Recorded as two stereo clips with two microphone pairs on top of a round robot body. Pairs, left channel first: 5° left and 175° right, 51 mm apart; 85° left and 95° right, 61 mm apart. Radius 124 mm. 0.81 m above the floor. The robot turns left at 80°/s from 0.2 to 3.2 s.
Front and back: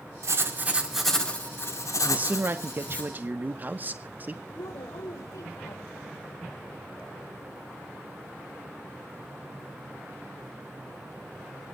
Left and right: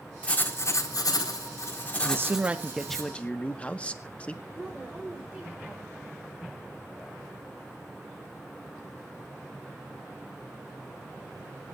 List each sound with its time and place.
0.2 s writing: 155° left, 5 m; by 3.0 s 65° right, 5 m
2.0 s a man speaking: 120° right, 1.4 m; by 4.4 s 145° left, 1.4 m
4.5 s a woman speaking: 5° right, 4 m